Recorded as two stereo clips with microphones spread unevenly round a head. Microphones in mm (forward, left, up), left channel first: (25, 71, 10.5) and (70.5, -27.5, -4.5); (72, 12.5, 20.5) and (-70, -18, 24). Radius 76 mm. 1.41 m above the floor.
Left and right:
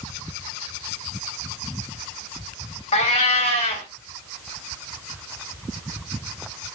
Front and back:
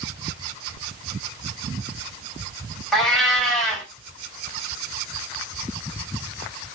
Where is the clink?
No clink in this recording.